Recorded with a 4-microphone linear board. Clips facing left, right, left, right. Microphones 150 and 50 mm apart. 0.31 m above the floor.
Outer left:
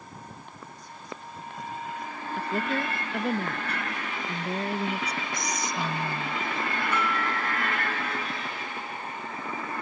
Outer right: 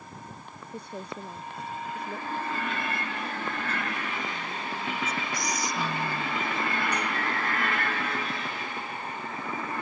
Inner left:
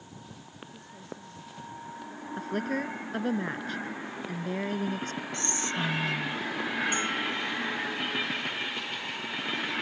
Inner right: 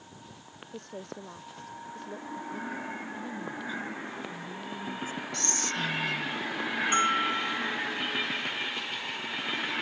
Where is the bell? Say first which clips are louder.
Outer left 2 dB, inner right 4 dB; 40° right (ahead or behind).